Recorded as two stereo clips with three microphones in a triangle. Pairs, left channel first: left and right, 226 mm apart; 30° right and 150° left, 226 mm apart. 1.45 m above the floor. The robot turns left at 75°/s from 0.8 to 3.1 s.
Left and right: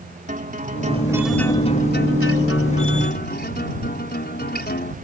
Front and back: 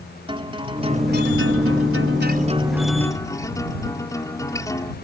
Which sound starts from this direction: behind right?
A guitar, at 0.3 s.